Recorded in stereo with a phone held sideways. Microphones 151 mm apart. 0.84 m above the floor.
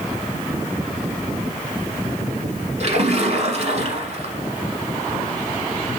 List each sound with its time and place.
2.8 s a splash: 50° right (ahead or behind), 1.2 m